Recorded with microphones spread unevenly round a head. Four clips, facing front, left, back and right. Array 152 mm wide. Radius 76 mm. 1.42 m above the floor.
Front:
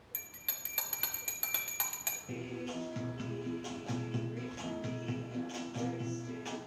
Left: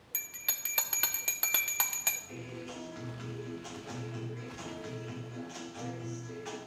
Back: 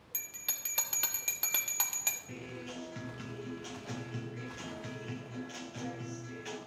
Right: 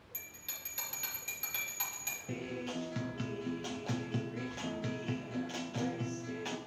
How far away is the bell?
About 1.1 m.